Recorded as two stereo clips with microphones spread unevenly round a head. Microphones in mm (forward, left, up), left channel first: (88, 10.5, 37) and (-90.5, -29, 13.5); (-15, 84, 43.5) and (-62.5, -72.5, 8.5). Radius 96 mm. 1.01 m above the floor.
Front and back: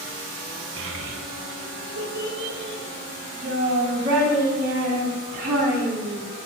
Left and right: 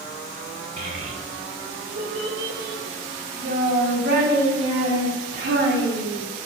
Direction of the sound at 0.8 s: 145° right.